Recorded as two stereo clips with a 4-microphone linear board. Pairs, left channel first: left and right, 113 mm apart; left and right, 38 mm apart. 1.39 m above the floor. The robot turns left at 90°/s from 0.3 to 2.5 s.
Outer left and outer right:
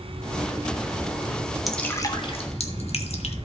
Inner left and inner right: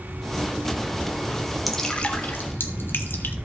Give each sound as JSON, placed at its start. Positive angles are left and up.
{"t": 1.7, "sound": "dripping", "side_deg": 0, "distance_m": 1.4}